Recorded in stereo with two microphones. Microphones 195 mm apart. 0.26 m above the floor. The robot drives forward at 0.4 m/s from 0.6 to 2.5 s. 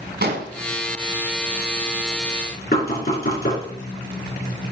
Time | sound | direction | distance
0.2 | an explosion | 60° right (ahead or behind) | 1.4 m
2.7 | knocking | 50° left (ahead or behind) | 3.5 m